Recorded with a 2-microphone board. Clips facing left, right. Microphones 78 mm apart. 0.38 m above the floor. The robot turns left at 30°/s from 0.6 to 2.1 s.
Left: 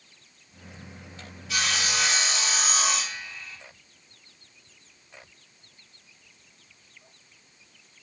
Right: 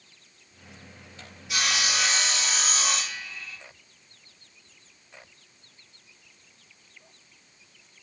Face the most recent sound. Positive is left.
turn(degrees=0)  # may be behind; listen again after turning